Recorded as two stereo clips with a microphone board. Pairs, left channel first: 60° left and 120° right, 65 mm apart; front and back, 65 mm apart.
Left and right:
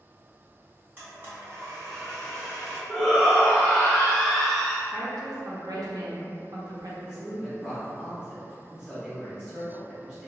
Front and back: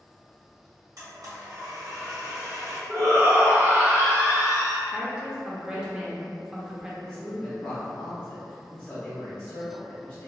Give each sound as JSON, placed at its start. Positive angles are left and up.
{"t": 1.0, "sound": "a blender", "azimuth_deg": -175, "distance_m": 1.3}
{"t": 2.9, "sound": "a shout", "azimuth_deg": 145, "distance_m": 1.0}
{"t": 4.9, "sound": "a woman speaking", "azimuth_deg": -100, "distance_m": 0.6}
{"t": 7.0, "sound": "a woman speaking", "azimuth_deg": -50, "distance_m": 0.7}